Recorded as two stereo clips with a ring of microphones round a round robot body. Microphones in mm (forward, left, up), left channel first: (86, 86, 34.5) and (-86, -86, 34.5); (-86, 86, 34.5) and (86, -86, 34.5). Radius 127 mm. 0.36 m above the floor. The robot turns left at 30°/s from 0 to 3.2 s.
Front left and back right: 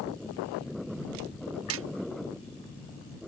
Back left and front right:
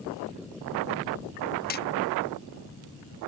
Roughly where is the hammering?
Behind.